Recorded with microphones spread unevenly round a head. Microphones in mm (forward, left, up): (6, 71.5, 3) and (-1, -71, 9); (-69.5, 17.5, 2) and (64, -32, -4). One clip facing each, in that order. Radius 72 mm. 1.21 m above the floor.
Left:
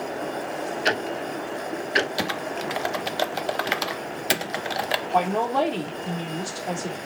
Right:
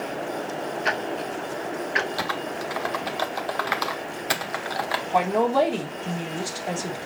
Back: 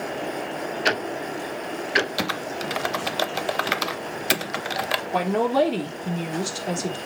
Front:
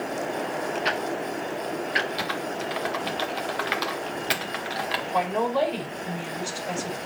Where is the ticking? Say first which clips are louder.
Left 2 dB, back 1 dB; 135° left, 0.6 m.